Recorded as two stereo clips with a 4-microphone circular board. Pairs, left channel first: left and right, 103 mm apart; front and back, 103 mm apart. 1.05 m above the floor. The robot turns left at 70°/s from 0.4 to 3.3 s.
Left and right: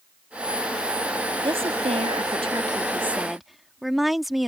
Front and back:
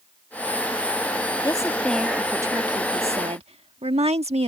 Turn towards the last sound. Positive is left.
turn(degrees=180)